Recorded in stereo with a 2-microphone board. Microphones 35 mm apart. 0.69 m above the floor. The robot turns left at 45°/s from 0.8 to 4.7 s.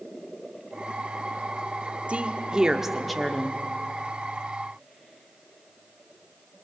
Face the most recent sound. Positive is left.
turn(degrees=110)